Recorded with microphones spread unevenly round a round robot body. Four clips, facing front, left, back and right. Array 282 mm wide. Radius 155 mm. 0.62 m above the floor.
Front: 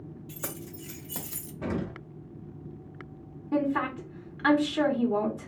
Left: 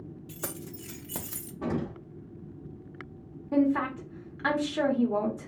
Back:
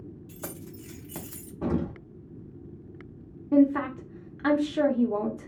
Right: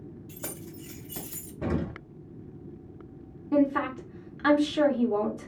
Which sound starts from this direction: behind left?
Keys jangling, at 0.3 s.